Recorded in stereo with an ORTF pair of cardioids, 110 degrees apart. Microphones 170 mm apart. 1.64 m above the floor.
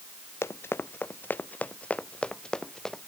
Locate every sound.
0.4 s running footsteps: 15° left; by 3.1 s straight ahead